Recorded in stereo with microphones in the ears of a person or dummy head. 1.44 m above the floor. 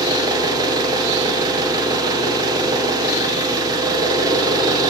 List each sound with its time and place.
0.0 s an engine running: 20° right (ahead or behind), 0.8 m